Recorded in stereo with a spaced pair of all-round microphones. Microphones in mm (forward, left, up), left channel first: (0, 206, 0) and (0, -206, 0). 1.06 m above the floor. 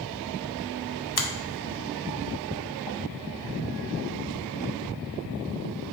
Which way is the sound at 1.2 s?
65° left (ahead or behind).